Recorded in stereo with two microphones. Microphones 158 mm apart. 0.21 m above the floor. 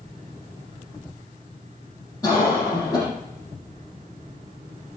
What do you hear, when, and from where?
2.2 s a cough: 20° left (ahead or behind), 8 m